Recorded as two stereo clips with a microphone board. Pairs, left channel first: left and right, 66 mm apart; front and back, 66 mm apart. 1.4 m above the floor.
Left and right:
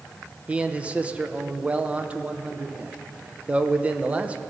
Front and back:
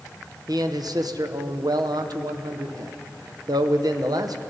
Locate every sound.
0.5 s a man speaking: 160° right, 0.7 m